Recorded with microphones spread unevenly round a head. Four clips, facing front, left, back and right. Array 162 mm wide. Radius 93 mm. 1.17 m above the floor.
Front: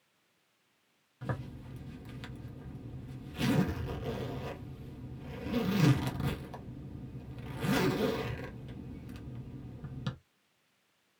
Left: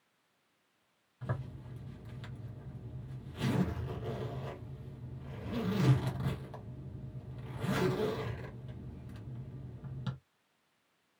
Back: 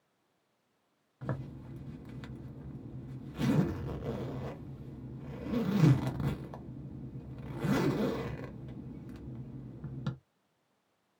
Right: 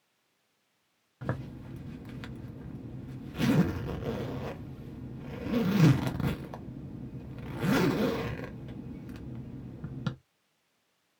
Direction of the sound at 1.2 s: 85° right.